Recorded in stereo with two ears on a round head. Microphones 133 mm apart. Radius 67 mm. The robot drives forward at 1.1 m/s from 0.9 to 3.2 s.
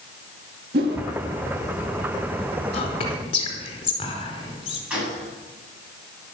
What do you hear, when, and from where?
0.7 s a whoosh: 70° right (ahead or behind), 2 m
2.7 s whispering: 45° left (ahead or behind), 4 m; by 4.8 s 40° left (ahead or behind), 4.5 m
4.9 s a gunshot: 10° right (ahead or behind), 8.5 m